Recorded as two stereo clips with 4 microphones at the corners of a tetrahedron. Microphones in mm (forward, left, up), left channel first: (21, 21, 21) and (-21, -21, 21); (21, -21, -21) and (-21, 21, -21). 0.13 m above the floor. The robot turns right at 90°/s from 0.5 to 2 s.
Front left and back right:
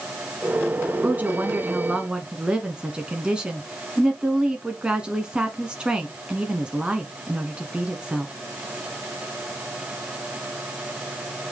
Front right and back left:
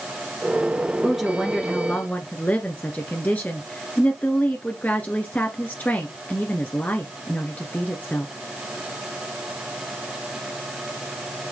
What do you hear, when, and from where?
1.0 s a woman speaking: 160° right, 1.2 m; by 8.3 s 75° right, 1.2 m